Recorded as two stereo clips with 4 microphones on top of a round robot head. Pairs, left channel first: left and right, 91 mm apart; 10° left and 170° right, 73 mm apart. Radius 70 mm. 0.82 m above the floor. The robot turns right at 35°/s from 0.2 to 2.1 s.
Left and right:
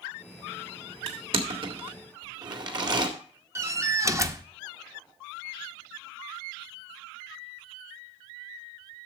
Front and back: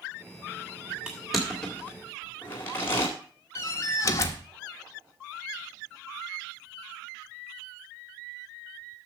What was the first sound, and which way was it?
Crushing, 90° right.